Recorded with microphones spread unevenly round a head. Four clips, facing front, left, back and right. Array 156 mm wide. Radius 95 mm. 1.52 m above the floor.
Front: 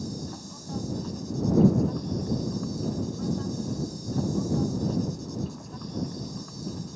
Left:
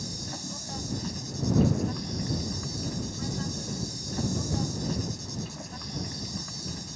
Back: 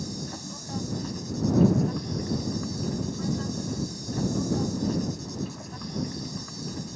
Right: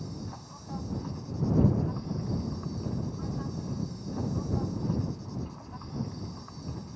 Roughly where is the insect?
Left.